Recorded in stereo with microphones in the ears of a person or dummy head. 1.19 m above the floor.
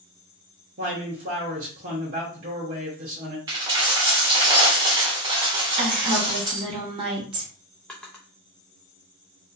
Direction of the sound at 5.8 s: 30° right (ahead or behind).